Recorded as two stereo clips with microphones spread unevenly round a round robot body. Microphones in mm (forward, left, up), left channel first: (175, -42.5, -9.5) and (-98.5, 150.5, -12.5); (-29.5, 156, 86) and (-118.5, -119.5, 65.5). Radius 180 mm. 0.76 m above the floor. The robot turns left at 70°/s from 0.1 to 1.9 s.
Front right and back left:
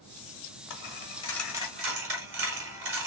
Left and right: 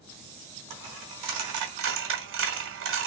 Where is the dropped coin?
75° right, 1.2 m; by 3.1 s 160° right, 1.2 m.